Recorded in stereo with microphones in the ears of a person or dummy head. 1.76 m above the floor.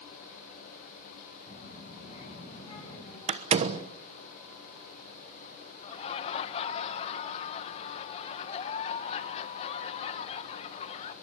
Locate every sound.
1.5 s a child speaking: 35° left (ahead or behind), 7 m; by 3.2 s 25° left (ahead or behind), 5.5 m
3.3 s a door slam: 35° right (ahead or behind), 1.1 m
5.8 s laughter: 35° left (ahead or behind), 1.5 m